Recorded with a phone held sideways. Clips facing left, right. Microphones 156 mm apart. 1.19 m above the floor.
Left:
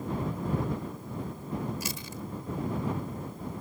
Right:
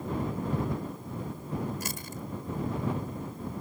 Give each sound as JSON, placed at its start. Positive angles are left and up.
{"t": 1.8, "sound": "chewing", "side_deg": -50}